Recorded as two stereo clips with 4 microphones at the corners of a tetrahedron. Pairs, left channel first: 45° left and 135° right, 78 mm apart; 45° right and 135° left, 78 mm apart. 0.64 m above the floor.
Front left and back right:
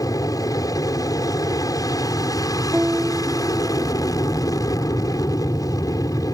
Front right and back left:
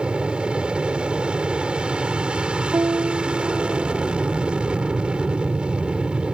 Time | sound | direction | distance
0.0 | an aircraft | 60° left | ?
2.7 | a piano | 150° left | ?